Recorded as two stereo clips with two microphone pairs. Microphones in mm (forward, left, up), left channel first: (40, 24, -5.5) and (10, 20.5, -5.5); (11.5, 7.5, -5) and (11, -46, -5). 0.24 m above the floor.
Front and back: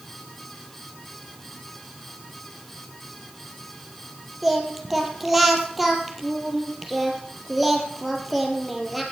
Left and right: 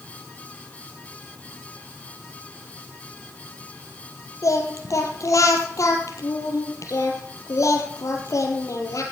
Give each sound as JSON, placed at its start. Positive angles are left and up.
{"t": 4.4, "sound": "singing", "azimuth_deg": 100, "distance_m": 3.5}